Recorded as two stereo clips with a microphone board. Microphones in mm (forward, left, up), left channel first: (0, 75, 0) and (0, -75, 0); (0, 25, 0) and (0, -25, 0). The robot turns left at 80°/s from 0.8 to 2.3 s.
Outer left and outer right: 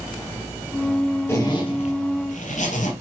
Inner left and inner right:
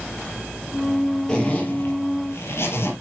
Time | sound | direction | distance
1.3 | a zipper | 160° left | 3 m